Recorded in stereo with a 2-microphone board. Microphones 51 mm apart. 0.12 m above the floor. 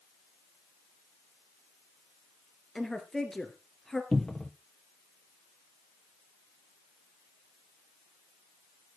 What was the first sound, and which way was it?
A woman speaking, 5° left (ahead or behind).